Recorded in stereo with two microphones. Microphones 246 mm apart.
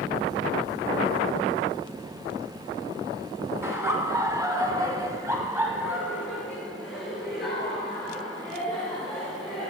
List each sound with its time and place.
3.6 s laughter: 10° right (ahead or behind), 2 m; by 9.7 s centre (ahead or behind), 6 m